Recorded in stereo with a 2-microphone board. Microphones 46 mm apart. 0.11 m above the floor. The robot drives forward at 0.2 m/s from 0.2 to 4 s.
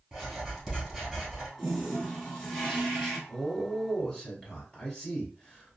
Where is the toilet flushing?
5° right (ahead or behind), 1.7 m.